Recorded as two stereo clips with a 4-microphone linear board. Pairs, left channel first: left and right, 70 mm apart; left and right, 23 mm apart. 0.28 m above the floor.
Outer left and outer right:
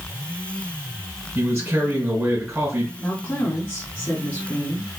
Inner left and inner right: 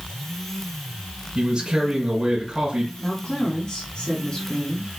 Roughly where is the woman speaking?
Left.